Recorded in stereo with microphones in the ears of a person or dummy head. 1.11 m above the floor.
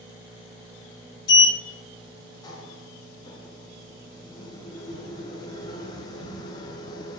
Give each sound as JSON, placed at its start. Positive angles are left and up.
{"t": 1.3, "sound": "a sliding door", "side_deg": 20, "distance_m": 0.8}